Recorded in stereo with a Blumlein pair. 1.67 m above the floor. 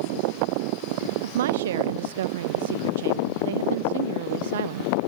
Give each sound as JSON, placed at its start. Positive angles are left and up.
{"t": 1.2, "sound": "a woman speaking", "azimuth_deg": -60}